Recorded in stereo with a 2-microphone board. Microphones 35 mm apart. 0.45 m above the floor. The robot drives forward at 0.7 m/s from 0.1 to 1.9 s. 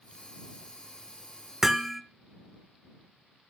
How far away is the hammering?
About 0.8 m.